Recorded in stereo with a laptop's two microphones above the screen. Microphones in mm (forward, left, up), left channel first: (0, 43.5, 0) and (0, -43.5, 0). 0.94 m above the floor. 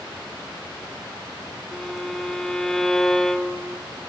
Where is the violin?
5° left (ahead or behind), 0.6 m.